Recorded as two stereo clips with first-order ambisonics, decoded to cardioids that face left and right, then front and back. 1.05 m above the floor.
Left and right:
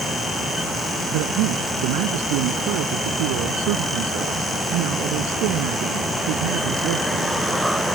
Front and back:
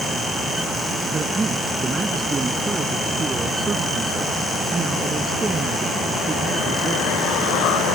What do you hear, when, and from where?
1.1 s a man speaking: 105° right